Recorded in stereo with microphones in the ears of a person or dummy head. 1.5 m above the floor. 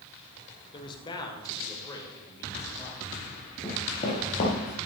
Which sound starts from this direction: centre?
Running footsteps, at 3.6 s.